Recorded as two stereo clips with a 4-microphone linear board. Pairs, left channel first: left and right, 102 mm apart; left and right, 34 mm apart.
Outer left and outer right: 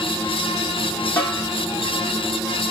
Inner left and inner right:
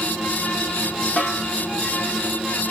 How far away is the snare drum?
About 6.5 m.